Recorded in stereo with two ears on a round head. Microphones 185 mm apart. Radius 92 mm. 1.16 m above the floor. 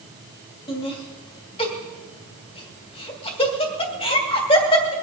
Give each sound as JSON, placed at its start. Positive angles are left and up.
{"t": 0.7, "sound": "laughter", "side_deg": 30, "distance_m": 2.5}